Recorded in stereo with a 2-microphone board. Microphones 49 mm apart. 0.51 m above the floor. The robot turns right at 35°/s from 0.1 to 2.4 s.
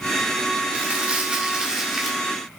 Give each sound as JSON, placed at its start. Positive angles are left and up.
{"t": 0.7, "sound": "crumpling", "azimuth_deg": -55, "distance_m": 1.4}